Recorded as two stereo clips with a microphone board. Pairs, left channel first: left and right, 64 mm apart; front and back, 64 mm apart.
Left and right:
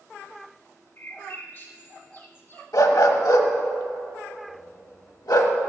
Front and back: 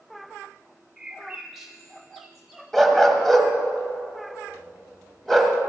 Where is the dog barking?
90° left, 1.1 m.